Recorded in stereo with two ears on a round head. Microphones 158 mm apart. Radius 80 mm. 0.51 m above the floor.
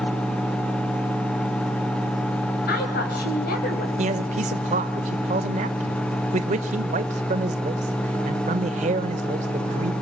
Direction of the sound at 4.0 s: 40° right (ahead or behind).